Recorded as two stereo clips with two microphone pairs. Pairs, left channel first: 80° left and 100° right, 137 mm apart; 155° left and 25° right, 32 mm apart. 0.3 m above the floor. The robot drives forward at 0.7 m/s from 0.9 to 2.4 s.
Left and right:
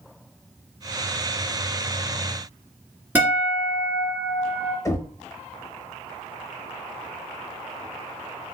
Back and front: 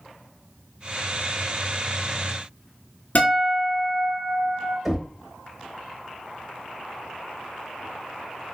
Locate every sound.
3.1 s a guitar: 175° right, 1.4 m
4.8 s knocking: 55° left, 0.8 m